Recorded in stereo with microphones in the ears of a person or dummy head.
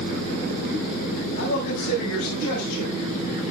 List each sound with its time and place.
1.4 s a man speaking: 80° left, 7 m; by 3.4 s 70° left (ahead or behind), 6.5 m